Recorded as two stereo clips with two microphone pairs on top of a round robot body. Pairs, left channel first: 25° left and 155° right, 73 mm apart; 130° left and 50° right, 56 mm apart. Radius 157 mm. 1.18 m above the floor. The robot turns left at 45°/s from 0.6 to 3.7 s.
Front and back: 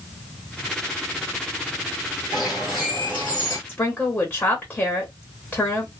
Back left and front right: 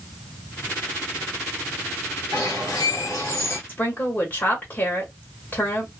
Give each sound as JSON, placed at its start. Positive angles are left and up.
{"t": 2.3, "sound": "a bird", "azimuth_deg": 160, "distance_m": 1.0}
{"t": 3.7, "sound": "a woman speaking", "azimuth_deg": 85, "distance_m": 1.4}